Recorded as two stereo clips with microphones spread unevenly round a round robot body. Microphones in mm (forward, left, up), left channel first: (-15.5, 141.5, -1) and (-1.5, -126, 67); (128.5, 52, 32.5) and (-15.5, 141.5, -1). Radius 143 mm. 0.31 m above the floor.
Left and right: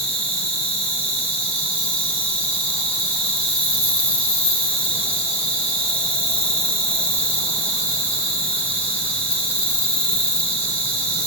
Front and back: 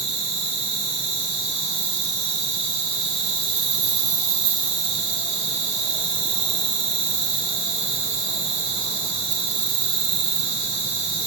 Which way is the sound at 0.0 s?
160° left.